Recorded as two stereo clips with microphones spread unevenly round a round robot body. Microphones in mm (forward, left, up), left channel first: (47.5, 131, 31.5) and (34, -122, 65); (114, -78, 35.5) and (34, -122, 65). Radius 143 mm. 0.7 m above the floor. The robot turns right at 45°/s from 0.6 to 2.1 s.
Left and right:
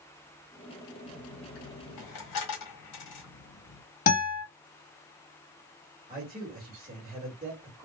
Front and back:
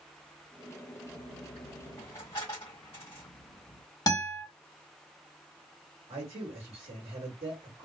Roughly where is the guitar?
Ahead left.